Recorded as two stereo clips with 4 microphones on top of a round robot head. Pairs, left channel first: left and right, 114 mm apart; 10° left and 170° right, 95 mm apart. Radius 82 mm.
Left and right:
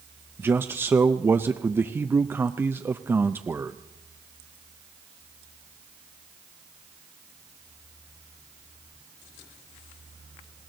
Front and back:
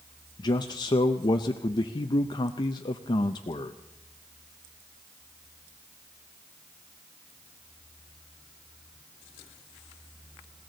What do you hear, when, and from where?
0.4 s a man speaking: 20° right, 0.6 m